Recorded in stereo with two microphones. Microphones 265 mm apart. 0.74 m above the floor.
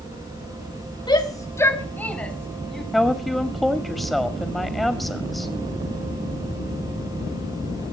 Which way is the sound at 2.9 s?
Centre (ahead or behind).